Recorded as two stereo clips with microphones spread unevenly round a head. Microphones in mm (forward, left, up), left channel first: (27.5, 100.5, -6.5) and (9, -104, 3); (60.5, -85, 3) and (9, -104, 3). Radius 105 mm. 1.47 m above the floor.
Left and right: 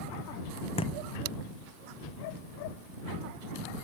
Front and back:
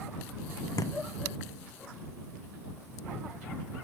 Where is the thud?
20° left.